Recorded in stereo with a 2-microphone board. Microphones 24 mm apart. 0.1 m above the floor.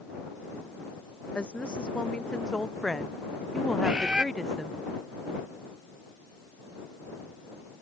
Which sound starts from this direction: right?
A bird, at 3.8 s.